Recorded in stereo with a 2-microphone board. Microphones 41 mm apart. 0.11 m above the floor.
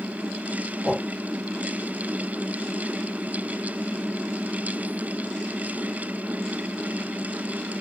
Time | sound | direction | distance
0.8 | a whoosh | 30° right (ahead or behind) | 1.1 m